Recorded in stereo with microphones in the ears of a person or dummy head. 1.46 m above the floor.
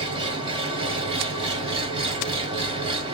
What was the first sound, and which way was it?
An engine running, 30° right (ahead or behind).